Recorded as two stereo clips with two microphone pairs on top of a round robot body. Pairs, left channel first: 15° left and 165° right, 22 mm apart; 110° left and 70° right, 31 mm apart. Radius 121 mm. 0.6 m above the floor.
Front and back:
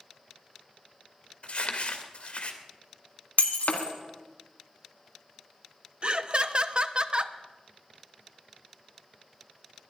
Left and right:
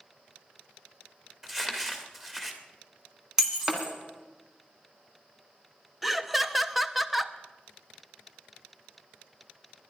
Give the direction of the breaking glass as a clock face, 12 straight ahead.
12 o'clock.